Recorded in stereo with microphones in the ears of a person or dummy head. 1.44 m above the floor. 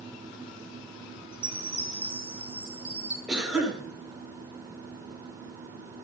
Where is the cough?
5° right (ahead or behind), 8 m.